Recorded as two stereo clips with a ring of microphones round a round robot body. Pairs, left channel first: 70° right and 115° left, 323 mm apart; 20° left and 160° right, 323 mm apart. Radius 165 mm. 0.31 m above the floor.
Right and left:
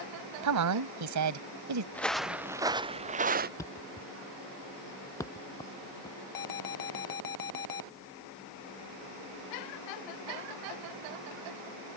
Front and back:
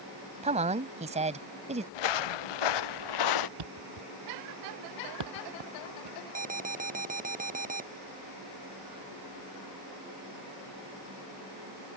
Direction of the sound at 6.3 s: 90° right.